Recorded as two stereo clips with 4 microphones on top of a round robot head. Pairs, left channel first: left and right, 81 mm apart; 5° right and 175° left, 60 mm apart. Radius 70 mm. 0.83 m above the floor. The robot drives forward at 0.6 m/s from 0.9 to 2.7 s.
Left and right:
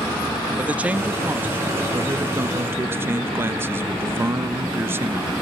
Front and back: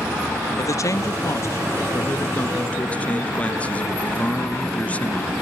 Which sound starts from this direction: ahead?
A man speaking, at 0.6 s.